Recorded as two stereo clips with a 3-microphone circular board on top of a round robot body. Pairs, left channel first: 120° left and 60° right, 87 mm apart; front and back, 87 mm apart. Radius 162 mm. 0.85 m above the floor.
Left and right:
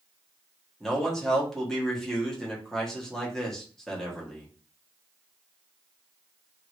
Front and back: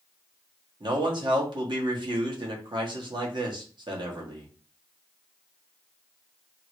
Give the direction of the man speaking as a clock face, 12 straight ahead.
5 o'clock.